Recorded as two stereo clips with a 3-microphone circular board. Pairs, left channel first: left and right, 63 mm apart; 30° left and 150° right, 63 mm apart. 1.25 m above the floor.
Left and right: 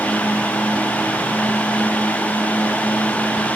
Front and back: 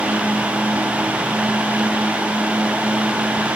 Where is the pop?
No pop in this recording.